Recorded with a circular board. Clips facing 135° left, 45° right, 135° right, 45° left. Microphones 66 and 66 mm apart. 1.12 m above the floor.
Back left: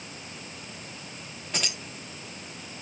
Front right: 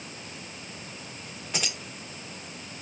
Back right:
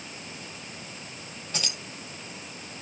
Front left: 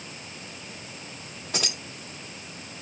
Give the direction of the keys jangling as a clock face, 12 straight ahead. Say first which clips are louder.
Even, front left 4 dB; 11 o'clock.